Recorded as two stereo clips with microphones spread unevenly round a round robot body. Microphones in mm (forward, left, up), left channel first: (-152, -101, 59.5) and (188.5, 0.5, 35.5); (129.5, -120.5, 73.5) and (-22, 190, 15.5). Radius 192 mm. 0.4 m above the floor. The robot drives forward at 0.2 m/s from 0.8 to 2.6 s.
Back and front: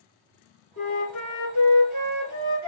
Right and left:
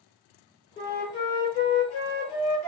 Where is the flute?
145° right, 1.6 m; by 2.7 s 155° right, 1.8 m.